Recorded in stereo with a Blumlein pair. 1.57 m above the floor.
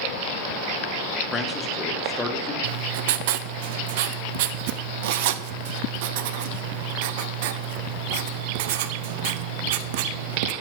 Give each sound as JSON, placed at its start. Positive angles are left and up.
{"t": 1.3, "sound": "a man speaking", "azimuth_deg": 15, "distance_m": 1.4}
{"t": 2.6, "sound": "writing", "azimuth_deg": -50, "distance_m": 0.5}